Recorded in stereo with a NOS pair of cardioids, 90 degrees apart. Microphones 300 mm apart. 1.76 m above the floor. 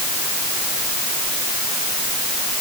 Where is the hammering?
I don't hear hammering.